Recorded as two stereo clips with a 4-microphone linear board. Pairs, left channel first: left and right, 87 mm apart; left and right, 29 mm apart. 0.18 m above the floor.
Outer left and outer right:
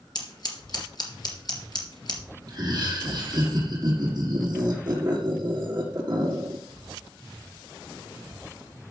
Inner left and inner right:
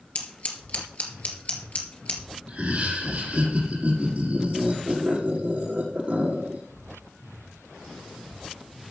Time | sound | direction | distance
0.1 | scissors | 55° left (ahead or behind) | 3 m
2.5 | laughter | 45° right (ahead or behind) | 6 m